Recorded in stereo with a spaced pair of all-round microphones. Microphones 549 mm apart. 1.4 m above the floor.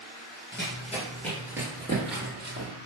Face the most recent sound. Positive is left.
turn(degrees=-30)  # may be behind; listen again after turning